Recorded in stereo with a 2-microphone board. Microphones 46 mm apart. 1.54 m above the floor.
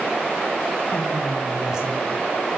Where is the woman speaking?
10° left (ahead or behind), 1.2 m; by 2.2 s 45° right (ahead or behind), 0.6 m.